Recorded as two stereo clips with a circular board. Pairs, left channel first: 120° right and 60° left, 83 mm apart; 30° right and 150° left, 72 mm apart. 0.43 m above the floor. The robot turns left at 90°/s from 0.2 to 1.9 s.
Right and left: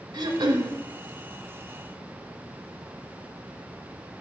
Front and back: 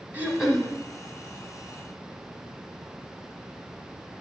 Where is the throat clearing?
85° left, 1.1 m; by 0.7 s 40° left, 1.1 m.